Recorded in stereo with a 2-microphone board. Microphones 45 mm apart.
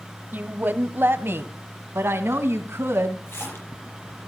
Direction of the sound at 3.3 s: 65° left (ahead or behind).